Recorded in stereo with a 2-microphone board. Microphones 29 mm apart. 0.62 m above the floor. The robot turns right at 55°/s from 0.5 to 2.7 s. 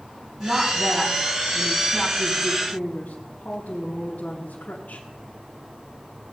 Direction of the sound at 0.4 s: Straight ahead.